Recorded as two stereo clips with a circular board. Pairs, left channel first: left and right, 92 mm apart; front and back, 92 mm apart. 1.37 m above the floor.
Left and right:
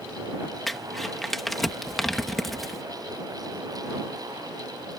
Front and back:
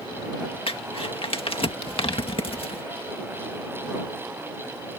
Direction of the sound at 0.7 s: Straight ahead.